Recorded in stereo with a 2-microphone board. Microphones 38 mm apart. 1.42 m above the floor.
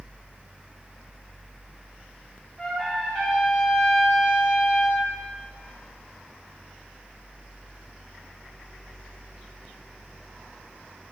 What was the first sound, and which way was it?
A trumpet, 15° left (ahead or behind).